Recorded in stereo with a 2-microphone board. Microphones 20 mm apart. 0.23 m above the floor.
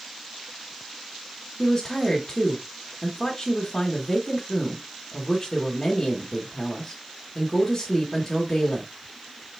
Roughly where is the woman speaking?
Centre.